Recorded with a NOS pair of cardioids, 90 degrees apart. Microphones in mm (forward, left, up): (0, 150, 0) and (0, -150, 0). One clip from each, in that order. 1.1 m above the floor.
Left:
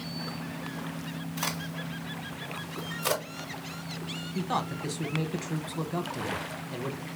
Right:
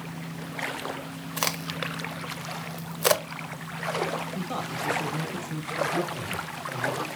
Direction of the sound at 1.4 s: 55° right.